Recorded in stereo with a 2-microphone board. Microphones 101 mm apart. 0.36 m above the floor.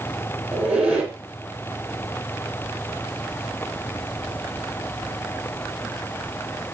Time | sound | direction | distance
0.5 | a squeak | 10° right (ahead or behind) | 1.0 m